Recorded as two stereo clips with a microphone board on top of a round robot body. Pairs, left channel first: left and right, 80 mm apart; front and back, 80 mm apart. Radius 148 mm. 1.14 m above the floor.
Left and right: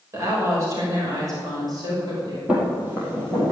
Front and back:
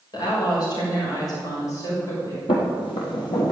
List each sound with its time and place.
0.1 s a woman speaking: 35° right, 6 m; by 2.4 s 50° right, 6 m
2.5 s footsteps: 15° right, 2 m; by 3.5 s 30° right, 3.5 m